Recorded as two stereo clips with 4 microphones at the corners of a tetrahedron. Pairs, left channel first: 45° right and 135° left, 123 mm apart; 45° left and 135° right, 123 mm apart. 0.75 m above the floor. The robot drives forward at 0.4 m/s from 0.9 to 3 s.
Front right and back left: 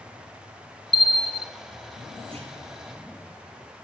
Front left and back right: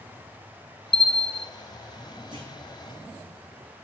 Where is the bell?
Straight ahead, 0.7 m; by 1.5 s 5° left, 0.5 m.